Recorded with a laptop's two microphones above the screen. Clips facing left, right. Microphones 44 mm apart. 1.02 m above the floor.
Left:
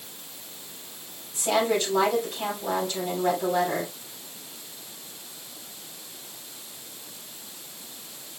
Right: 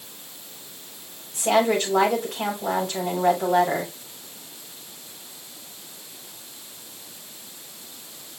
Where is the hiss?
I don't hear a hiss.